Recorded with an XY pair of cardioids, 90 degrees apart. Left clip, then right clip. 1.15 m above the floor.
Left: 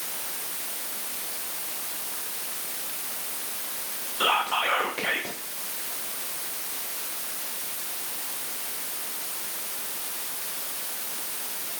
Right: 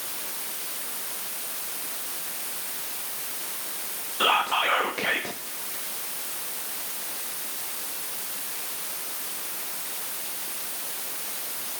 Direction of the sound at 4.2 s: 15° right.